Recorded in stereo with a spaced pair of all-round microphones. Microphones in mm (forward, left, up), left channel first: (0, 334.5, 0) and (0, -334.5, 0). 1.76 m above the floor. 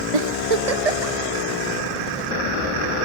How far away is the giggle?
About 0.9 m.